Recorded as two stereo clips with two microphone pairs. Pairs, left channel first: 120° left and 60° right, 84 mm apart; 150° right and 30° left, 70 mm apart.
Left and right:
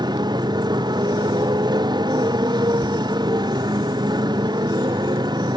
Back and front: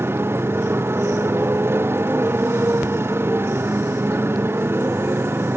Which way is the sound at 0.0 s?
25° right.